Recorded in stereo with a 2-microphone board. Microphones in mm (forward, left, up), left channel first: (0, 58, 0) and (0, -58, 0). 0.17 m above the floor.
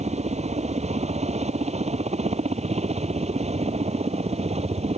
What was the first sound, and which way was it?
A helicopter, 65° right (ahead or behind).